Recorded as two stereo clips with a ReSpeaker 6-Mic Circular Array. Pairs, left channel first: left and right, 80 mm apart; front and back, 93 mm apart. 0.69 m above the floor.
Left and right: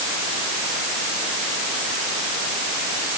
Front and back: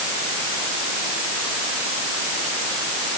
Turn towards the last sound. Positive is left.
No sound to turn to.